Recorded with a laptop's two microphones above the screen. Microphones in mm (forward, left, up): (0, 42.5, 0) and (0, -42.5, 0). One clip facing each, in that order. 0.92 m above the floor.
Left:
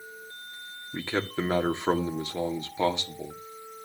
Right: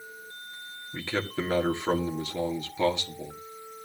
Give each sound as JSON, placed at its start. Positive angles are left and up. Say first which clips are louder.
{"t": 0.9, "sound": "a man speaking", "louder": "left 1 dB", "side_deg": 25, "distance_m": 1.8}